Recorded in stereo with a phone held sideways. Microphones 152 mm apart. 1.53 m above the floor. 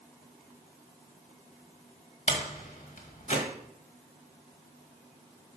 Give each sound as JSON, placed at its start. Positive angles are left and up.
{"t": 2.3, "sound": "a door slam", "side_deg": 55, "distance_m": 1.6}